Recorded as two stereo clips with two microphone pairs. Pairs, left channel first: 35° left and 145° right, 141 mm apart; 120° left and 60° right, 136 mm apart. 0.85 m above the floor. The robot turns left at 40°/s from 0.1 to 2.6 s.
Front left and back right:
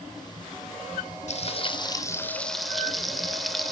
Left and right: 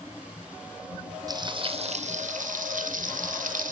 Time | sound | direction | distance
1.3 | frying | straight ahead | 2 m